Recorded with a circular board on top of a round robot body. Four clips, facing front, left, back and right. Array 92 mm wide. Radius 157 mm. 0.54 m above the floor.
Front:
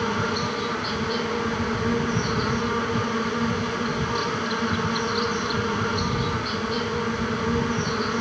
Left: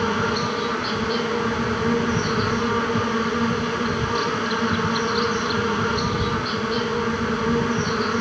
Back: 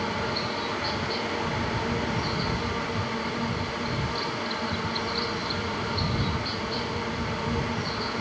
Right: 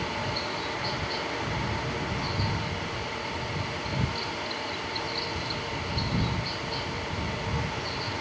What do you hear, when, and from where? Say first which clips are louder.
0.0 s an insect: left 10 dB, front 4 dB; 65° left